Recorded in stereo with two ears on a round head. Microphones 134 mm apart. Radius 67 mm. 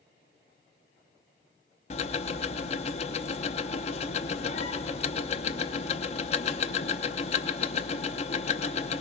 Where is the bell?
No bell in this recording.